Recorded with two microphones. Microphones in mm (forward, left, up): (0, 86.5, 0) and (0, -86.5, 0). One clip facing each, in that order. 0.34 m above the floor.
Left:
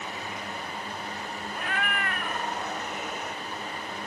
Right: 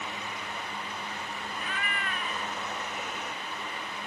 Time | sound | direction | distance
1.6 | a cat meowing | 65° left (ahead or behind) | ?